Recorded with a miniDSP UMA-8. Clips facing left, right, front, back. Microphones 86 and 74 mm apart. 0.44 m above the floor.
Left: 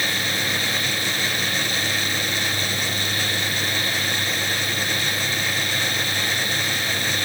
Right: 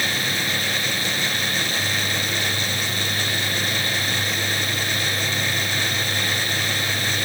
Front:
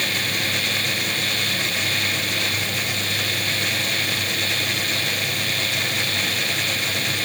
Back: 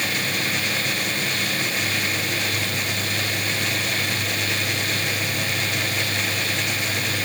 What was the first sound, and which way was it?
Only background noise.